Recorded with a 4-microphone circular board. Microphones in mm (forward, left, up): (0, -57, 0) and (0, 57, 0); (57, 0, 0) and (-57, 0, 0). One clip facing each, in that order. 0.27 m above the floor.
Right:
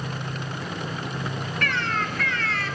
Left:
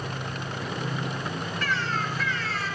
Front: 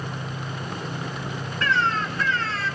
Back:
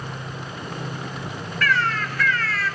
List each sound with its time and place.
1.6 s a bird: 65° right, 0.9 m